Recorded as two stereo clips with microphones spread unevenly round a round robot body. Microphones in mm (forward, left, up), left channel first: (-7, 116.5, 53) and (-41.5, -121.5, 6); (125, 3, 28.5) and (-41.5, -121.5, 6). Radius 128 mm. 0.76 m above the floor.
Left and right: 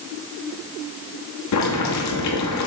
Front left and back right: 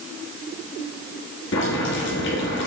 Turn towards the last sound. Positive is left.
turn(degrees=75)